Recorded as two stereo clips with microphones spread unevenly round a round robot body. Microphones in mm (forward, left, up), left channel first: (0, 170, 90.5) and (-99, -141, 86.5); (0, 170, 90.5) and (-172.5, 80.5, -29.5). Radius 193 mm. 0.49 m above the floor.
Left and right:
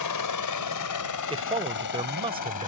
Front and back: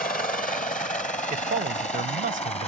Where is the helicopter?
90° left; by 2.7 s 95° left.